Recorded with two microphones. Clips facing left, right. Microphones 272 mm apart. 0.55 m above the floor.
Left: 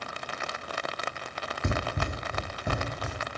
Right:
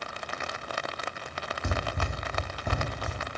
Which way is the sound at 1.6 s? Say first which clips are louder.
Left 3 dB; 25° left (ahead or behind).